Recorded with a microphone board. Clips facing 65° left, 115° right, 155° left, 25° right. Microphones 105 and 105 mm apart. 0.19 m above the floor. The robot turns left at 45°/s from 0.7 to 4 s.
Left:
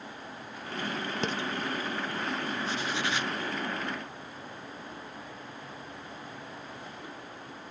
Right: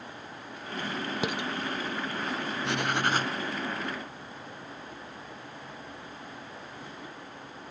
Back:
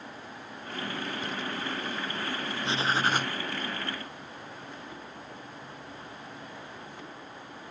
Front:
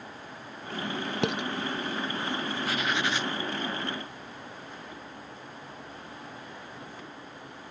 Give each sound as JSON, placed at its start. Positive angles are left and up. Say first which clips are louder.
{"t": 1.2, "sound": "dishes clattering", "louder": "right 1 dB, front 6 dB", "azimuth_deg": -30}
{"t": 2.6, "sound": "writing", "louder": "right 8 dB, back 3 dB", "azimuth_deg": -135}